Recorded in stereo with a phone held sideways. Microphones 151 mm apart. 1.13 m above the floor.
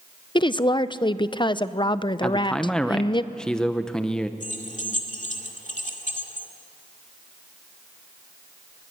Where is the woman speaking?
35° left (ahead or behind), 0.6 m.